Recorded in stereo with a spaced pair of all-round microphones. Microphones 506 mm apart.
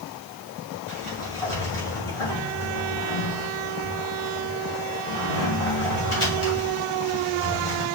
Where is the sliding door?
75° left (ahead or behind), 1.9 m.